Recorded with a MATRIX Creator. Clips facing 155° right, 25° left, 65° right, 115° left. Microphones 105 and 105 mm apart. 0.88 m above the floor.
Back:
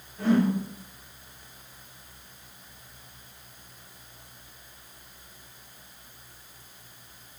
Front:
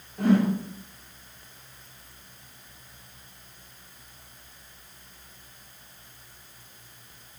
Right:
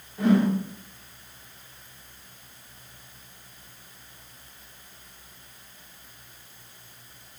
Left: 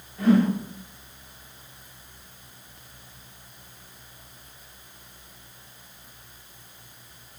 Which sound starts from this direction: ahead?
A whoosh, at 0.2 s.